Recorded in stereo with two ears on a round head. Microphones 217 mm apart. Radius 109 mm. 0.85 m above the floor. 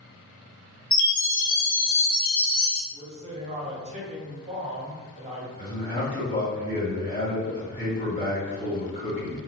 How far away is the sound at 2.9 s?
About 0.8 m.